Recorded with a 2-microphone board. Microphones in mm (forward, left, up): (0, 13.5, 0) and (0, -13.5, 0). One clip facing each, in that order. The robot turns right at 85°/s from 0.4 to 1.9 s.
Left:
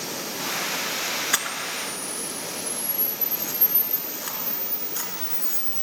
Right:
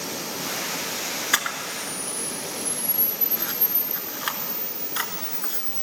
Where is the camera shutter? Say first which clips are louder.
Right 1 dB; 160° right, 1.0 m; by 5.8 s 110° right, 1.0 m.